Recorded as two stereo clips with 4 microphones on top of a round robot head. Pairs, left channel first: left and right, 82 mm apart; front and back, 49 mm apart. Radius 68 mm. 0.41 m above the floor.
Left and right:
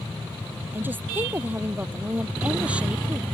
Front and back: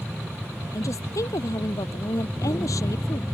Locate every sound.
0.7 s a woman speaking: 20° right; by 3.2 s 10° right